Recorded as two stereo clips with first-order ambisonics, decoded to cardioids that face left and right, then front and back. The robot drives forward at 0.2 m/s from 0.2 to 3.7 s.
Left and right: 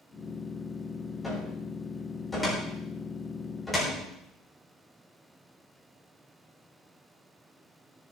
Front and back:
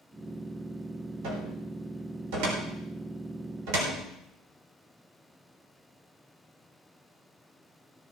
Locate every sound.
1.2 s a cupboard door: 175° left, 4 m